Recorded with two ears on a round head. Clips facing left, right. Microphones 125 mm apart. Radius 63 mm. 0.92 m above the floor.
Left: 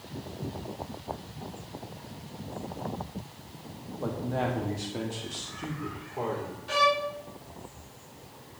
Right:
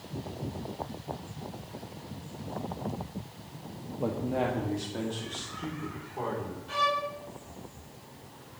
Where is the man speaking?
20° right (ahead or behind), 1.0 m; by 6.6 s 20° left (ahead or behind), 2.5 m.